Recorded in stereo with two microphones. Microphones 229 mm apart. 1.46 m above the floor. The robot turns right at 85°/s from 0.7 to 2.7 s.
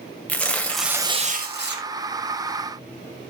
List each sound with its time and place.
0.3 s tearing paper: 170° left, 1.7 m; by 1.9 s 90° right, 1.7 m